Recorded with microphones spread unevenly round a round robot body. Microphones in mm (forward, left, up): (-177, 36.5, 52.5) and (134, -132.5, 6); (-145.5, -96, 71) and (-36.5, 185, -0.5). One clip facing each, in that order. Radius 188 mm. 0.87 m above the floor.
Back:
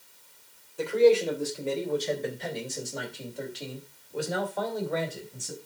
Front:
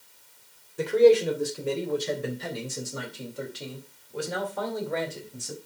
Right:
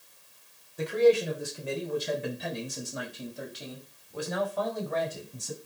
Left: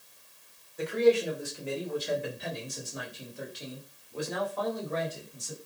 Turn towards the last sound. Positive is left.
turn(degrees=-115)